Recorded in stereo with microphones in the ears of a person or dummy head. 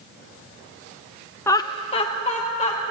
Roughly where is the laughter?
Centre.